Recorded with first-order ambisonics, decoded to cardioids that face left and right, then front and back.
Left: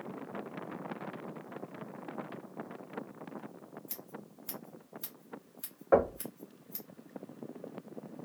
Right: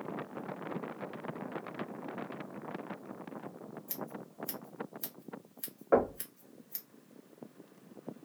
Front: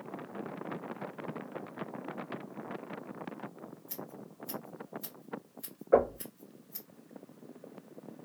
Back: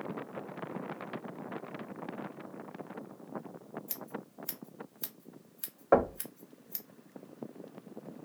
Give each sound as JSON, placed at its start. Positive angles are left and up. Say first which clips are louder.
{"t": 3.9, "sound": "scissors", "louder": "right 5 dB, back 2 dB", "azimuth_deg": -155, "distance_m": 1.1}
{"t": 5.9, "sound": "knocking", "louder": "left 2 dB, even", "azimuth_deg": 170, "distance_m": 0.9}